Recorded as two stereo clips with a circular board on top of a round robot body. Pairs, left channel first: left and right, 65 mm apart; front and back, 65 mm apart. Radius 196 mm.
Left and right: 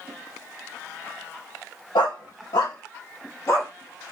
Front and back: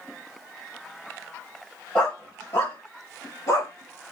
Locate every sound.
1.9 s a dog barking: 75° left, 1.2 m; by 3.7 s 45° left, 3 m